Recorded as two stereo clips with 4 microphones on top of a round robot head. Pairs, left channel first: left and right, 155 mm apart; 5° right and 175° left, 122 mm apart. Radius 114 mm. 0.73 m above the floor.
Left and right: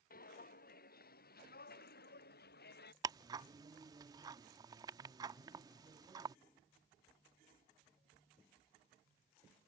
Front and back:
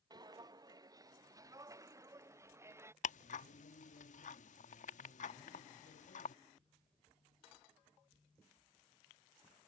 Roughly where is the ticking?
Ahead right.